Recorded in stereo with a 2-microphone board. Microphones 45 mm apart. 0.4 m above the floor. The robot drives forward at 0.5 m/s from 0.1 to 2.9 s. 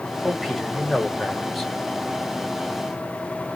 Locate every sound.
0.2 s a man speaking: 5° left (ahead or behind), 1.7 m